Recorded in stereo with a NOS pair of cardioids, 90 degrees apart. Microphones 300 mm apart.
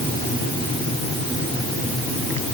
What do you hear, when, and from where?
Only background noise.